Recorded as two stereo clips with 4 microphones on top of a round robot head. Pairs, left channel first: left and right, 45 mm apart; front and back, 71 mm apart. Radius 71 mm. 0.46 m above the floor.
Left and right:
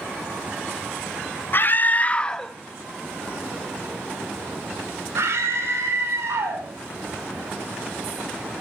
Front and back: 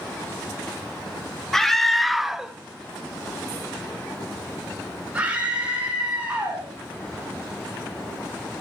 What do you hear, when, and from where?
1.5 s a scream: 85° left, 1.5 m; by 6.7 s 105° right, 4.5 m